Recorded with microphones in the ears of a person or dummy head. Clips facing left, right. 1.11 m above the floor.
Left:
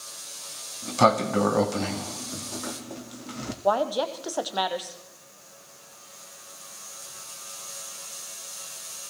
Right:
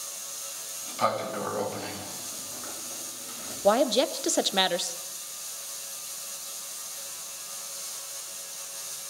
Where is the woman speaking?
20° right (ahead or behind), 0.7 m.